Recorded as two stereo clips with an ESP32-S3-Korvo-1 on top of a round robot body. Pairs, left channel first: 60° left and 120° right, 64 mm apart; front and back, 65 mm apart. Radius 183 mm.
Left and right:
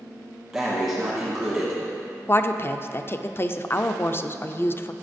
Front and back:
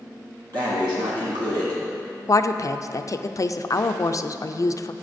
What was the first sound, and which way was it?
Breathing, 150° left.